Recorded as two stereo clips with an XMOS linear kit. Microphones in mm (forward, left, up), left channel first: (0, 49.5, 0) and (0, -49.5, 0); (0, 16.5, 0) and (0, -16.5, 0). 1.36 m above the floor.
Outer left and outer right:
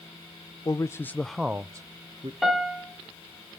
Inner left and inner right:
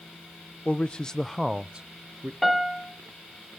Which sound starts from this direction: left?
A man speaking, at 0.7 s.